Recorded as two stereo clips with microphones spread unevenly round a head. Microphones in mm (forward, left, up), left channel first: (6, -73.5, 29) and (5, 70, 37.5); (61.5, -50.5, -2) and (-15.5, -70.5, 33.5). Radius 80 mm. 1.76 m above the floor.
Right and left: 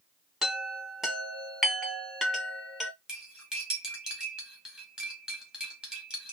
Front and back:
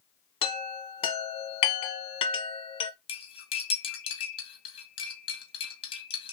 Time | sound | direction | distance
0.4 | a chime | 5° left | 1.0 m
3.1 | cutlery clinking | 10° left | 1.4 m